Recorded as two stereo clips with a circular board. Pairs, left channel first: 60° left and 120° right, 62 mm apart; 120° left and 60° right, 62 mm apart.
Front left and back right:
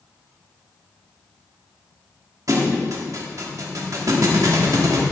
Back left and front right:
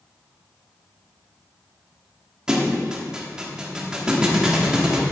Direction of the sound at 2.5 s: 140° right.